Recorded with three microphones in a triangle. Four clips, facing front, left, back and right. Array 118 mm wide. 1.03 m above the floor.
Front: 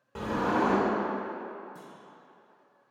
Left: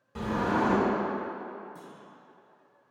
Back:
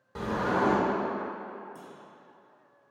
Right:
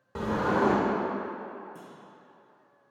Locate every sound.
0.1 s a sliding door: 80° right, 1.5 m
1.8 s a clunk: 45° right, 1.4 m